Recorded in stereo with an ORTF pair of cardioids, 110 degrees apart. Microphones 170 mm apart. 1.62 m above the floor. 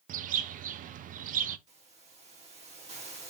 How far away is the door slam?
No door slam in this recording.